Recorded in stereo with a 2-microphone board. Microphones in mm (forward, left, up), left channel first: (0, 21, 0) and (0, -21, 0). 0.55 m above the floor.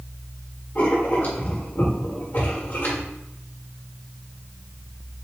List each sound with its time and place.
0.8 s writing: 55° left (ahead or behind), 1.7 m